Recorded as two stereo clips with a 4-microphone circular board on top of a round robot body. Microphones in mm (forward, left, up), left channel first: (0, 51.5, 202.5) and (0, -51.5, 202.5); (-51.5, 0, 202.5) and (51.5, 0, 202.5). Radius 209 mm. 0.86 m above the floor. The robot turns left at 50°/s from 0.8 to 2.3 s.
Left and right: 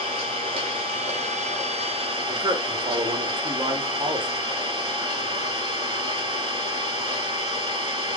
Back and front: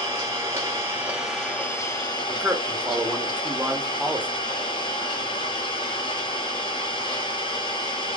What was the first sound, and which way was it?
An engine running, 65° right.